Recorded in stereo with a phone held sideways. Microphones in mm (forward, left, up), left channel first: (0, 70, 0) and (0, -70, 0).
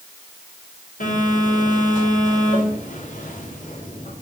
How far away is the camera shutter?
I don't hear a camera shutter.